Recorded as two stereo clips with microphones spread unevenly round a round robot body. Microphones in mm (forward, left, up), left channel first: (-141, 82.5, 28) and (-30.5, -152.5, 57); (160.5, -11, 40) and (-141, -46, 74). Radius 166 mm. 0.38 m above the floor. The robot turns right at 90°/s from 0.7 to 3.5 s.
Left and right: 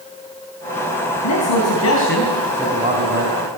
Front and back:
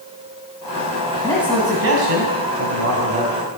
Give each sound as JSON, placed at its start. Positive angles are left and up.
{"t": 1.2, "sound": "a man speaking", "azimuth_deg": 80, "distance_m": 3.5}